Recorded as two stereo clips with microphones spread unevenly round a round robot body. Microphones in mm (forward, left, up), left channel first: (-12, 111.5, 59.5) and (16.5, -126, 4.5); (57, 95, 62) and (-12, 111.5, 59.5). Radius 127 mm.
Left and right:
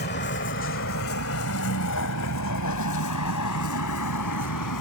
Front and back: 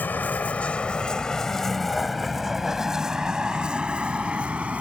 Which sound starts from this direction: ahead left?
A vehicle, at 0.0 s.